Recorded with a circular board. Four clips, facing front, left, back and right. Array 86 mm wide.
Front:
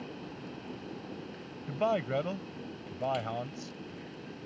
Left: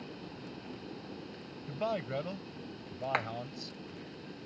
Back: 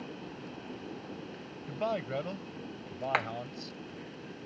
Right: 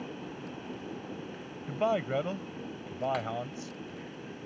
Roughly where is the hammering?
Behind left.